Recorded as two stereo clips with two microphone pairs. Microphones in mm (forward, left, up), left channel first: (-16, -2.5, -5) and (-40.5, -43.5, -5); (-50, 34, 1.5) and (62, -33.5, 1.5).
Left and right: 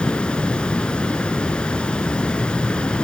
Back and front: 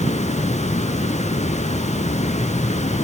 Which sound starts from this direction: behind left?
Running water, at 0.0 s.